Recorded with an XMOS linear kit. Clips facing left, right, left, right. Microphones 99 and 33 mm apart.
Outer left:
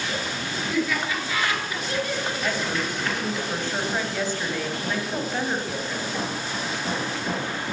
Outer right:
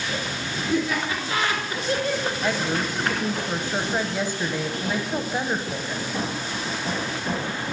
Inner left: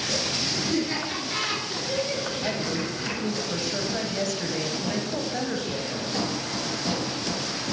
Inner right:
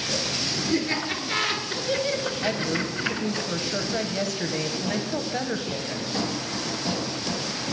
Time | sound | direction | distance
0.7 | laughter | 25° right (ahead or behind) | 3 m
2.4 | a woman speaking | 15° right (ahead or behind) | 1.1 m